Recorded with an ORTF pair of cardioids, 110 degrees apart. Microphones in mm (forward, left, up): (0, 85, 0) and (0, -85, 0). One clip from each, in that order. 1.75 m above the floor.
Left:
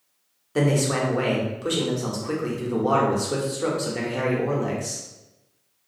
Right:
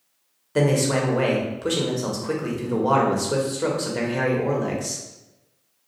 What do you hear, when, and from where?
0.6 s a man speaking: 5° right, 0.7 m